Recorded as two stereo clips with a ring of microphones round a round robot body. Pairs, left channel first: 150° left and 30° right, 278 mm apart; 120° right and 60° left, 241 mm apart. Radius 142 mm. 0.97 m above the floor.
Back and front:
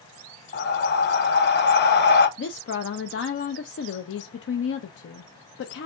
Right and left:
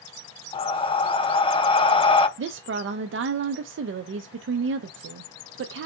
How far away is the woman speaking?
About 0.5 m.